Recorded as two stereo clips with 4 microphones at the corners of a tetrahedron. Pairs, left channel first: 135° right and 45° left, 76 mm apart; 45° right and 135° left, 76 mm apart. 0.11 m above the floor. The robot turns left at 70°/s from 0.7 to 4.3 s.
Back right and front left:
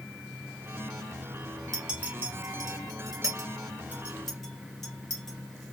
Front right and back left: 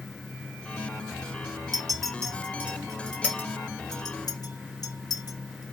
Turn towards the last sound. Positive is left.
turn(degrees=-50)